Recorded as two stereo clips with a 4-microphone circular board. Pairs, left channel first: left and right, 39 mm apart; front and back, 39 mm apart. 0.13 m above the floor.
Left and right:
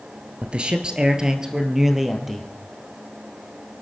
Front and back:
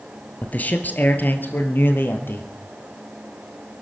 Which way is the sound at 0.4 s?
40° right.